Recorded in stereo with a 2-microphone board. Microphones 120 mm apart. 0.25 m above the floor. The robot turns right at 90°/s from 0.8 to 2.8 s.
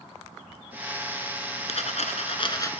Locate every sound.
1.7 s a dropped coin: 65° left, 1.1 m; by 2.7 s 155° left, 1.1 m